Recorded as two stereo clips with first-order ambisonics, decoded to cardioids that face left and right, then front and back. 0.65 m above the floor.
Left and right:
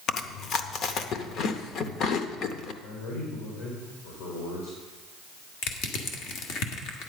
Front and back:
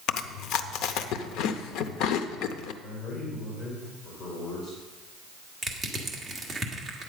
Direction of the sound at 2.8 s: 75° left.